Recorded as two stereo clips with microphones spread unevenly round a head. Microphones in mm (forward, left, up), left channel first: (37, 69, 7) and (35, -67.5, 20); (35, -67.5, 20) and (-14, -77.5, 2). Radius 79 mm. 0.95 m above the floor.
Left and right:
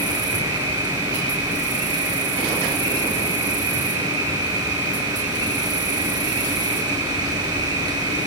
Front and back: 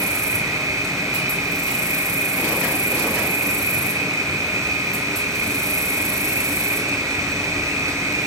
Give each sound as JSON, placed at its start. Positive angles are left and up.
{"t": 0.0, "sound": "an insect", "azimuth_deg": -155, "distance_m": 5.5}